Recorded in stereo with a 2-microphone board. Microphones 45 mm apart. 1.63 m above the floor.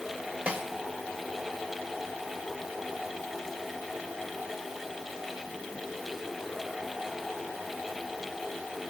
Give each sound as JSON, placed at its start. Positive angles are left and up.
{"t": 0.5, "sound": "a snare drum", "side_deg": -30, "distance_m": 2.0}